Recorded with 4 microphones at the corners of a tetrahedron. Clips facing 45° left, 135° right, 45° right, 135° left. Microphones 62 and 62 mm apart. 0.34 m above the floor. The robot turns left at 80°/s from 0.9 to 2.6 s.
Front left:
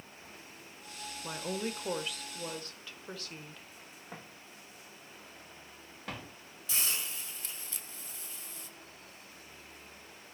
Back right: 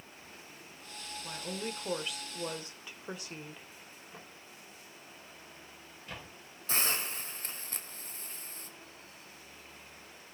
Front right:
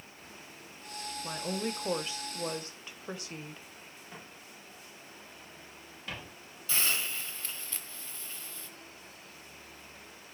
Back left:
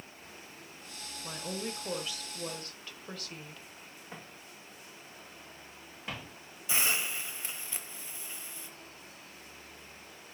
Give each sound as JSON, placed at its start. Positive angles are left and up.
{"t": 1.2, "sound": "a woman speaking", "azimuth_deg": 25, "distance_m": 1.3}
{"t": 4.1, "sound": "footsteps", "azimuth_deg": 65, "distance_m": 7.5}
{"t": 6.7, "sound": "a hiss", "azimuth_deg": -160, "distance_m": 1.4}